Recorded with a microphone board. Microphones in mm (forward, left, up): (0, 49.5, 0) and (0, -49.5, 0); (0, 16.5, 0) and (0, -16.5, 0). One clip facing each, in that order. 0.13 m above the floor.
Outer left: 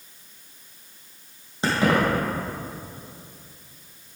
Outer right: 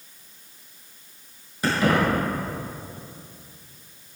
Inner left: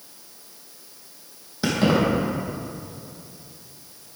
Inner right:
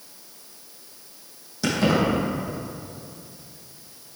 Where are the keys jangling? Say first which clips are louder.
Even, inner left 1 dB; 25° left (ahead or behind), 4.5 m.